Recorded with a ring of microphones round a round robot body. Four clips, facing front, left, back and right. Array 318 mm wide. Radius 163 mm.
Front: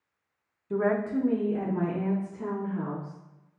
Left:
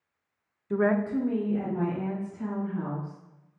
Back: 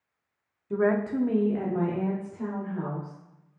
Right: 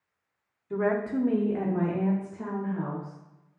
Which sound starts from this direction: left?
A woman speaking, at 0.7 s.